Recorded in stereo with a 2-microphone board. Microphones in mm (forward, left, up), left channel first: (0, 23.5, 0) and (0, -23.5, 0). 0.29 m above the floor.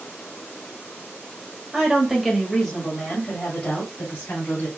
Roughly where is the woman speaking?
Centre.